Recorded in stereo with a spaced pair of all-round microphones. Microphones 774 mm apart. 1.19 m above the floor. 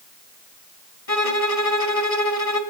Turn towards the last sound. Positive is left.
turn(degrees=45)  # may be behind; listen again after turning